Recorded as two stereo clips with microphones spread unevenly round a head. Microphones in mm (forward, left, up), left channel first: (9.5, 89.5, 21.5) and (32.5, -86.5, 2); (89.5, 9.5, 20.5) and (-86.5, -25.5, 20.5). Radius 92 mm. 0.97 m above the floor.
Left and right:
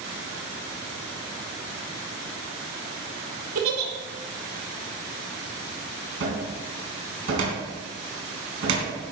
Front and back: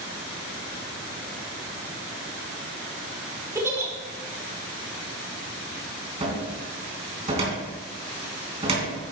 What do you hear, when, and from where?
3.5 s a giggle: 95° right, 2 m
6.2 s a cupboard door: 110° right, 3 m